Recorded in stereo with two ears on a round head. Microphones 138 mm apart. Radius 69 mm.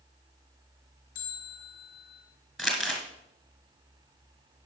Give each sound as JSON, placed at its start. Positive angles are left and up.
{"t": 1.1, "sound": "a bell", "side_deg": 60, "distance_m": 3.5}
{"t": 2.6, "sound": "crumpling", "side_deg": 0, "distance_m": 1.8}